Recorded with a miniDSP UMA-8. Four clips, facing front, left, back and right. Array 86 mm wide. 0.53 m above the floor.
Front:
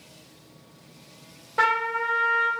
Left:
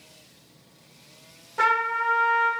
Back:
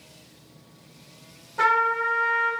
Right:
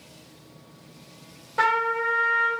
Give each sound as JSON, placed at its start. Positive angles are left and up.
{"t": 1.6, "sound": "a trumpet", "azimuth_deg": -25, "distance_m": 1.6}